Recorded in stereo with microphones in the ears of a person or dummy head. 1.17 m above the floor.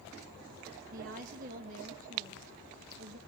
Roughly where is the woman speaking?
Right.